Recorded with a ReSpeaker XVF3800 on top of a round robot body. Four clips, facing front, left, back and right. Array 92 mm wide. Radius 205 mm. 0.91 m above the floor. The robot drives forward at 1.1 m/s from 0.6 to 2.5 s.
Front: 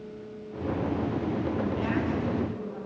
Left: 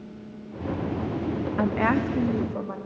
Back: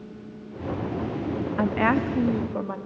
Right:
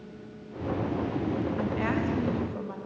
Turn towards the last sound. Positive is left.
turn(degrees=160)